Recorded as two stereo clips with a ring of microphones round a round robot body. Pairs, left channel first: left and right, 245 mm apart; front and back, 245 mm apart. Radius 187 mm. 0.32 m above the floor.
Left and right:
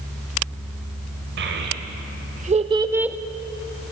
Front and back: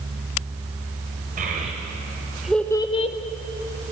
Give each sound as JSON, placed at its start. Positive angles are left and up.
{"t": 1.4, "sound": "a child speaking", "azimuth_deg": -125, "distance_m": 1.1}